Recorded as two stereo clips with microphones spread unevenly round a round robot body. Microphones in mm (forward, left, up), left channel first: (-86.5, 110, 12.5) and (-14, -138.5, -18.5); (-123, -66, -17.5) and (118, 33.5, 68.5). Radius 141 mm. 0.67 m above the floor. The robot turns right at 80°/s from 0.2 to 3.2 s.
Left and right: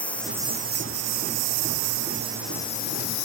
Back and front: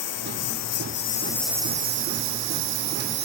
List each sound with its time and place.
0.0 s a lawn mower: 170° right; by 3.2 s 75° left